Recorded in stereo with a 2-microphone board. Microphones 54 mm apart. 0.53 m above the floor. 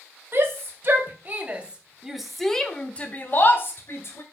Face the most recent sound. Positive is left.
turn(degrees=55)  # may be behind; listen again after turning